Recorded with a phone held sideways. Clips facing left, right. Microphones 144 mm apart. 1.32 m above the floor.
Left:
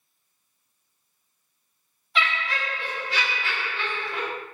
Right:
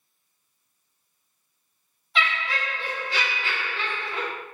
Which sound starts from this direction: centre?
Laughter, at 2.1 s.